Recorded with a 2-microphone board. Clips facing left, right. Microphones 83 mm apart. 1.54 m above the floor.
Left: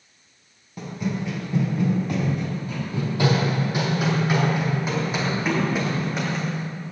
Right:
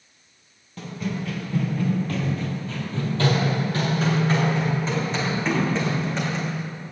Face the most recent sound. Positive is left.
turn(degrees=5)  # may be behind; listen again after turning